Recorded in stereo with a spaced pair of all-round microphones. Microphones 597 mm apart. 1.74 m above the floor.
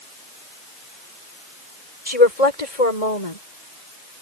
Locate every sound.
2.1 s a woman speaking: 85° left